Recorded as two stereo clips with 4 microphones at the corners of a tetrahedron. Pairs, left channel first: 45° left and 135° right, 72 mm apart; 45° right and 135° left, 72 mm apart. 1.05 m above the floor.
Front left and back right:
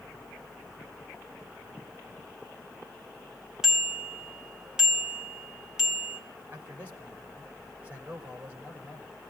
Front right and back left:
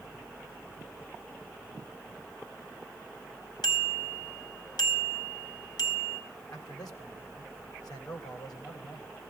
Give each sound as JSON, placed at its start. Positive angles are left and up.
{"t": 3.6, "sound": "a bicycle bell", "azimuth_deg": -55, "distance_m": 4.0}
{"t": 6.5, "sound": "a man speaking", "azimuth_deg": -70, "distance_m": 4.0}